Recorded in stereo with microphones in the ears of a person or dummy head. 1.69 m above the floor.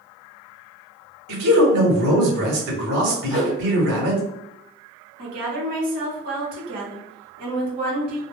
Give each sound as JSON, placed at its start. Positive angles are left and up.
{"t": 1.3, "sound": "a man speaking", "side_deg": -65, "distance_m": 1.0}
{"t": 3.3, "sound": "a whoosh", "side_deg": -15, "distance_m": 1.8}
{"t": 5.2, "sound": "a woman speaking", "side_deg": -50, "distance_m": 0.9}